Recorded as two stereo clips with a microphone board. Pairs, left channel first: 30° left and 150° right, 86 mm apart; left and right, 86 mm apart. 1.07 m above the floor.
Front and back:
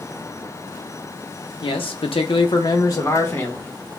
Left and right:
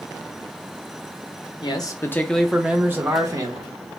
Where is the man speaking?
55° left, 0.7 m; by 3.8 s 40° right, 1.3 m.